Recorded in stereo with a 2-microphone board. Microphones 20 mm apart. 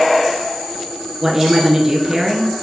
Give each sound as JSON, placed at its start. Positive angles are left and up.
{"t": 1.2, "sound": "a woman speaking", "side_deg": -20, "distance_m": 1.7}